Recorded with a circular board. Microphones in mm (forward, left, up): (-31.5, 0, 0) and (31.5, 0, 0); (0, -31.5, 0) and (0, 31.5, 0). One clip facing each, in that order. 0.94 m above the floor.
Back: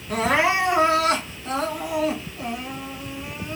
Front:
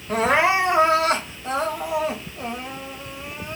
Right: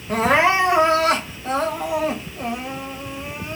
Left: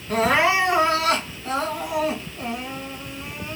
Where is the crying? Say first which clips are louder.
Front 2 dB, right 2 dB; 35° right, 1.2 m.